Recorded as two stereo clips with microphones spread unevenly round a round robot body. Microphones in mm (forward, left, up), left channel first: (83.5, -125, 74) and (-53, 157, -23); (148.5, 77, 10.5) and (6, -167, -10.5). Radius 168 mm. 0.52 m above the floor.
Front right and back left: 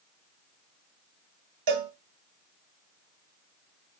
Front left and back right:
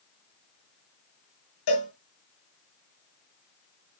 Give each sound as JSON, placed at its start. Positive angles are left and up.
{"t": 1.7, "sound": "a cowbell", "azimuth_deg": 115, "distance_m": 2.0}